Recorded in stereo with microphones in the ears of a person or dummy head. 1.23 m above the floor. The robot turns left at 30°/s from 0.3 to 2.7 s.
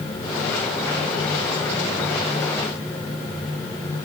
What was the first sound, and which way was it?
Only background noise.